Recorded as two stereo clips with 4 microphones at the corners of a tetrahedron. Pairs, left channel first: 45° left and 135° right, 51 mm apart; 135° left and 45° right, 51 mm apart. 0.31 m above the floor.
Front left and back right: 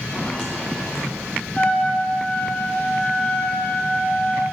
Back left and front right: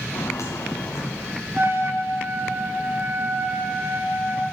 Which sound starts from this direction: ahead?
A trumpet, at 1.5 s.